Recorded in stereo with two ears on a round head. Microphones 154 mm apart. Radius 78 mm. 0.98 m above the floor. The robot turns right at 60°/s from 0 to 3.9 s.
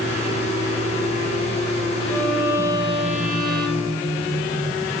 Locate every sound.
2.1 s a violin: 165° left, 5 m; by 4.4 s 85° right, 5 m